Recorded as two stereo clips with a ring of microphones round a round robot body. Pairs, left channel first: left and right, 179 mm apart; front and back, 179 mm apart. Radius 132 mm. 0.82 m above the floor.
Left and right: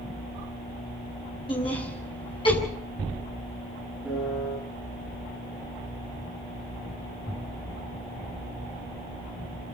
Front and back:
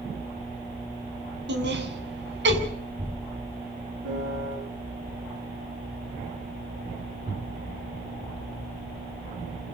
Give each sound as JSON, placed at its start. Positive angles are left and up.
{"t": 1.5, "sound": "laughter", "azimuth_deg": 160, "distance_m": 7.5}
{"t": 4.0, "sound": "a piano", "azimuth_deg": 180, "distance_m": 9.0}